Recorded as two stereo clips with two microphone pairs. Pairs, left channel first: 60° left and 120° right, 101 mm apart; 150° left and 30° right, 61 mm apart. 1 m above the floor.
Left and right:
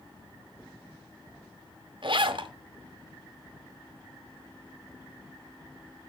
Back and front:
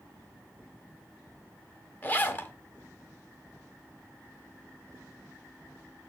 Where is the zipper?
155° right, 0.8 m.